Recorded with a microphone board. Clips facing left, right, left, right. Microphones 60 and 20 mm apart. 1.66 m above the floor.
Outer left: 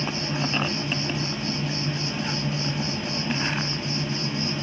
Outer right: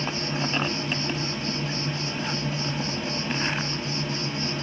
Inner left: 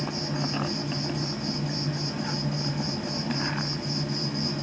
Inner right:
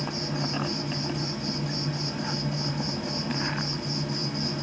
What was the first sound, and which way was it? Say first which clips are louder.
An insect: outer left 1 dB, even; centre (ahead or behind).